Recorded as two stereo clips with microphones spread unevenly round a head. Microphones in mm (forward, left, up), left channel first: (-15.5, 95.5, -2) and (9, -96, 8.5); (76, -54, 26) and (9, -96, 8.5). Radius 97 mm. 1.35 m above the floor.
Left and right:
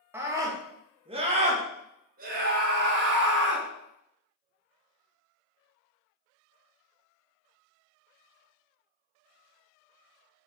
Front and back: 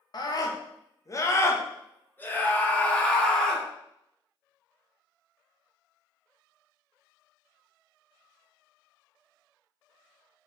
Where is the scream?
5° right, 2 m; by 3.6 s 50° right, 2.5 m.